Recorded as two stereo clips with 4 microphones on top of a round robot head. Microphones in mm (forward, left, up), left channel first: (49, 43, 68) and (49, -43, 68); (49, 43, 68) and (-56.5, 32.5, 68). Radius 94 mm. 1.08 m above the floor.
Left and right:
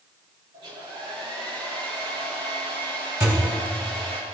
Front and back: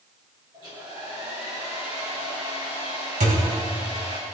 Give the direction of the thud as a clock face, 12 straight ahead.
5 o'clock.